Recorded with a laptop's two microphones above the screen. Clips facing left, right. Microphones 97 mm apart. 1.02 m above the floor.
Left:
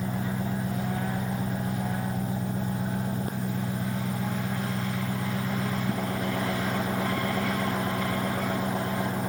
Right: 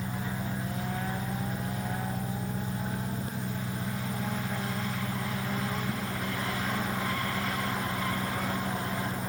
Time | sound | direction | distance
0.0 | an engine running | 50° left (ahead or behind) | ?